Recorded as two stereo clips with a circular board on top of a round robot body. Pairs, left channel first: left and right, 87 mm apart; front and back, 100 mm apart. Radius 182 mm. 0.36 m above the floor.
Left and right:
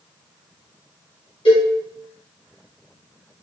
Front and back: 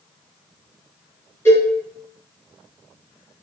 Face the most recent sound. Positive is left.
turn(degrees=70)